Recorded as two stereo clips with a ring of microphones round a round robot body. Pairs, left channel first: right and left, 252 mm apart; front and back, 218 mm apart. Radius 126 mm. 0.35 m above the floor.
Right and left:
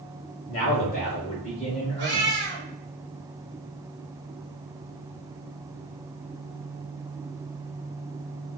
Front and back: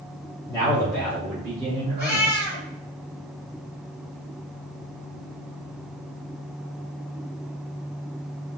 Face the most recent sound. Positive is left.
turn(degrees=45)